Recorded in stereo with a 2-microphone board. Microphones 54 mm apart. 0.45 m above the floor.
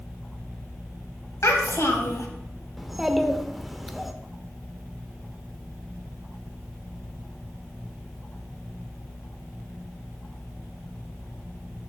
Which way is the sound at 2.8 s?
Centre (ahead or behind).